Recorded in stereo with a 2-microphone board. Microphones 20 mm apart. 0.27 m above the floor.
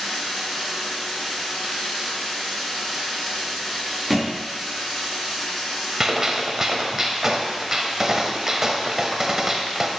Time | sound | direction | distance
0.0 | running water | 30° left (ahead or behind) | 3.5 m
4.1 | a thud | 5° right (ahead or behind) | 2.5 m
6.0 | a gunshot | 20° right (ahead or behind) | 0.8 m